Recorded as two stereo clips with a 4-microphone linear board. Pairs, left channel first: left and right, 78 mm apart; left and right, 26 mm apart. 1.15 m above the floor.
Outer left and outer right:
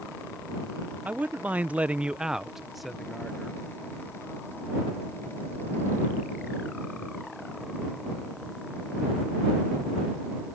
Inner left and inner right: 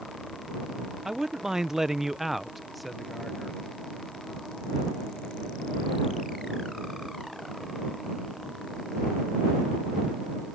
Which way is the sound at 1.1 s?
20° right (ahead or behind).